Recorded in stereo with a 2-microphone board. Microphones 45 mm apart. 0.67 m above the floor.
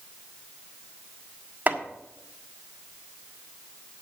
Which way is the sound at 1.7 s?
40° right (ahead or behind).